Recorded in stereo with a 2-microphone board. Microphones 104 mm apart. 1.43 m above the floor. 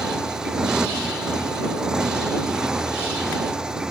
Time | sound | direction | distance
0.0 | a motorcycle | 5° right (ahead or behind) | ?